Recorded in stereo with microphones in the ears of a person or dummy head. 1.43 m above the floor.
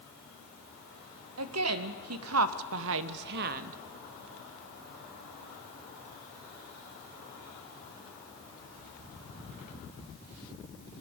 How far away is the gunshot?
I don't hear a gunshot.